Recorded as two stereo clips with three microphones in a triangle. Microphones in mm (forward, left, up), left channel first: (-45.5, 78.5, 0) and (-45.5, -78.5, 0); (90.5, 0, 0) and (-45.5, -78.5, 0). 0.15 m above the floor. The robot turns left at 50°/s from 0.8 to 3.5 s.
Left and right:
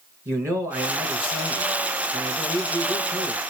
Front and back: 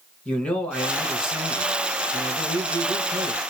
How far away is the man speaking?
About 1.1 m.